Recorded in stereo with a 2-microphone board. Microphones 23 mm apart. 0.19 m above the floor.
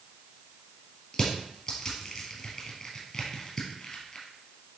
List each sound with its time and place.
1.1 s crushing: 30° left (ahead or behind), 3 m